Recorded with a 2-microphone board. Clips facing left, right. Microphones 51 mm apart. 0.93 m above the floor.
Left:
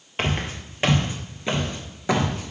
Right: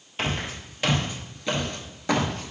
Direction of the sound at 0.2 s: 40° left (ahead or behind).